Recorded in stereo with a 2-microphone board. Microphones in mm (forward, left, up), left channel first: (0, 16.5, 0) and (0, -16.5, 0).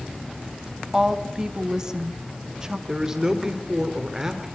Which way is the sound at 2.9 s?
20° right (ahead or behind).